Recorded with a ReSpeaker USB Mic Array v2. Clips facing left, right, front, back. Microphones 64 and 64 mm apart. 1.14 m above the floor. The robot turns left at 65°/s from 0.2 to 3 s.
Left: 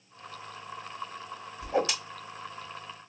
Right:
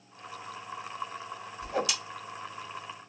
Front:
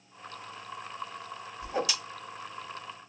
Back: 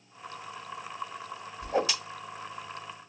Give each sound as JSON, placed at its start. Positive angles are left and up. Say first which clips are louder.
{"t": 1.6, "sound": "a whoosh", "louder": "left 3 dB, back 4 dB", "azimuth_deg": 160, "distance_m": 1.5}